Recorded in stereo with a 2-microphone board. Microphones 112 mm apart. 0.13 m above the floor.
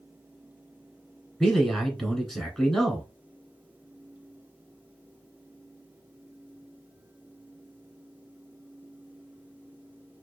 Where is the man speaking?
5° left (ahead or behind), 1.1 m.